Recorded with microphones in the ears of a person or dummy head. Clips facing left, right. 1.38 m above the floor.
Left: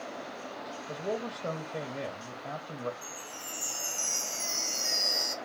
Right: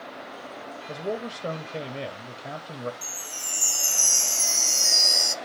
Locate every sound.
0.9 s a man speaking: 30° right (ahead or behind), 0.7 m
3.0 s a chime: 80° right, 0.6 m